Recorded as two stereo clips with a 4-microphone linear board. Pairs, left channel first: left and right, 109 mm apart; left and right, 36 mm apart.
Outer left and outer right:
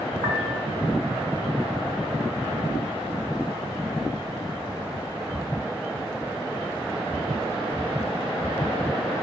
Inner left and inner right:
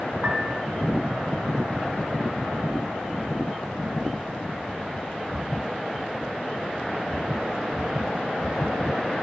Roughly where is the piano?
Right.